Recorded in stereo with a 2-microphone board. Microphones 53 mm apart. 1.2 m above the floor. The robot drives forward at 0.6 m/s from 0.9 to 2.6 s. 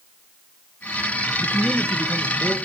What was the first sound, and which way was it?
A man speaking, 25° right (ahead or behind).